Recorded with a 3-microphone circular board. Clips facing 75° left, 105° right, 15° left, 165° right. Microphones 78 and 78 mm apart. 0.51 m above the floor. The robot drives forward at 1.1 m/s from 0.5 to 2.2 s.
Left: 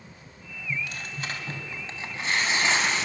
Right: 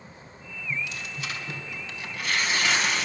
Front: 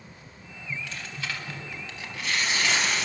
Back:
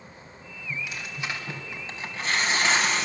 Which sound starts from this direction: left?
Tearing paper, at 0.7 s.